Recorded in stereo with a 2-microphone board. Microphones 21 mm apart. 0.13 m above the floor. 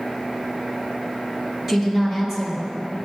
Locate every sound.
1.7 s a woman speaking: 10° right (ahead or behind), 2.5 m